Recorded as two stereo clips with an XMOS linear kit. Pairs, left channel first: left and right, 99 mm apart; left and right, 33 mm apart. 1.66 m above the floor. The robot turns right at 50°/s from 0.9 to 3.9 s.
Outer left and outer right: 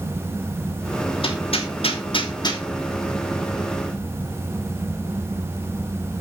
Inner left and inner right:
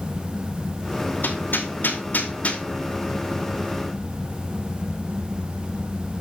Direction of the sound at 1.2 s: 65° left (ahead or behind).